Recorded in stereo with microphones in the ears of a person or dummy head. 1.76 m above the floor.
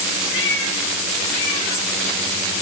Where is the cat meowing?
70° left (ahead or behind), 6 m.